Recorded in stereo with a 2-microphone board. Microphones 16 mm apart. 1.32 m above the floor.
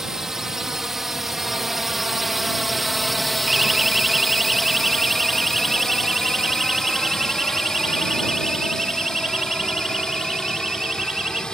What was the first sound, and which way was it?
A drone, 35° right (ahead or behind).